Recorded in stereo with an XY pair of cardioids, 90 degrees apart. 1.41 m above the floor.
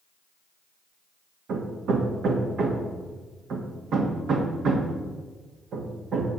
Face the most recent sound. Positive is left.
turn(degrees=-70)